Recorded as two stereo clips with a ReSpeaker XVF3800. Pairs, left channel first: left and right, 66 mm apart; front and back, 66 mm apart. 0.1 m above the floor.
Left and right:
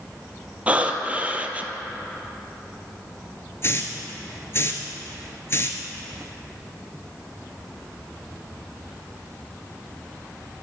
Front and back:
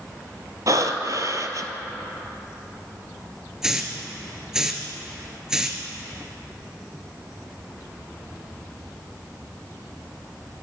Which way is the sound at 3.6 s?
105° left.